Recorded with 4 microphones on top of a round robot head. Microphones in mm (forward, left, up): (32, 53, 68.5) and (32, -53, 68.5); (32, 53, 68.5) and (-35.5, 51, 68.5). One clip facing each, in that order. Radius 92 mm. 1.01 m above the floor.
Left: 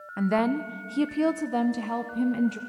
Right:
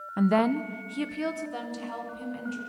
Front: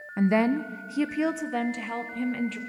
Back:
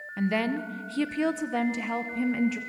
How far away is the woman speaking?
About 0.8 m.